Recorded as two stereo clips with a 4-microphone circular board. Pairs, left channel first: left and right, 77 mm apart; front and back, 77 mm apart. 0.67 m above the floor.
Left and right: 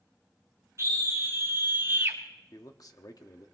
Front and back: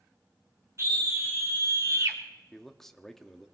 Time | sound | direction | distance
0.8 | a scream | 135° right | 3 m
2.5 | a man speaking | 85° left | 1.0 m